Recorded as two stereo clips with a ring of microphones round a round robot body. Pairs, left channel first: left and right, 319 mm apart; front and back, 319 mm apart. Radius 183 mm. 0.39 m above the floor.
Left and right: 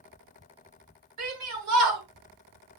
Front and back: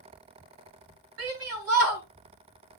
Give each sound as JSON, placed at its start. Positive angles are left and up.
{"t": 1.2, "sound": "a shout", "azimuth_deg": -130, "distance_m": 3.0}